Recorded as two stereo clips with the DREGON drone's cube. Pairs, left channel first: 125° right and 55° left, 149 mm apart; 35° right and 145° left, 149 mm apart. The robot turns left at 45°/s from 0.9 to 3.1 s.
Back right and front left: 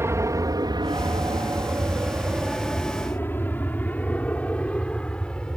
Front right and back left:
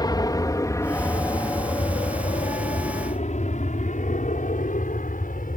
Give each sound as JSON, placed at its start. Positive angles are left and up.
{"t": 0.0, "sound": "an aircraft", "azimuth_deg": 0}